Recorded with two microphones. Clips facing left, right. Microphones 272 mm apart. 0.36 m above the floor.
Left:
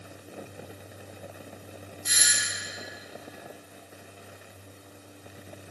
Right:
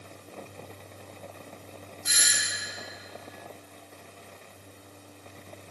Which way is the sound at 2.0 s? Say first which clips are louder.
Even; 40° left (ahead or behind).